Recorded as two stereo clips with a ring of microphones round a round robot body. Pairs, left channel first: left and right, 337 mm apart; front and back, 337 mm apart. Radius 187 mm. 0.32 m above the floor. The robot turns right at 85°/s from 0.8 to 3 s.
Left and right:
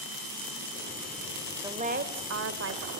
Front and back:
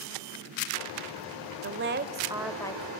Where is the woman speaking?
165° right, 1.5 m; by 2.9 s 55° right, 1.5 m.